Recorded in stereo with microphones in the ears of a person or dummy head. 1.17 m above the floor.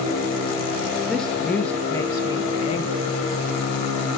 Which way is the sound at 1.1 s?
5° left (ahead or behind).